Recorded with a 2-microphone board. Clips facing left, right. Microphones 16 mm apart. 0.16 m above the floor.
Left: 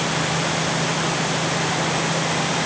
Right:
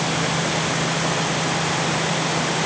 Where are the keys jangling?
I don't hear keys jangling.